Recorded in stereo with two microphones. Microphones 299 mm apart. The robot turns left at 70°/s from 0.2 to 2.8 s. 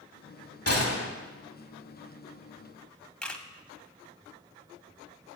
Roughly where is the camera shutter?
Centre.